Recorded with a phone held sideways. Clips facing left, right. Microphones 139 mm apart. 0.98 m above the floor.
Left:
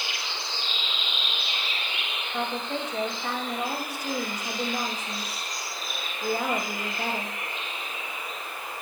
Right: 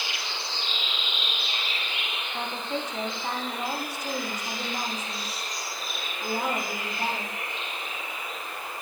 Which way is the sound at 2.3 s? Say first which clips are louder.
Left 2 dB; 55° left (ahead or behind).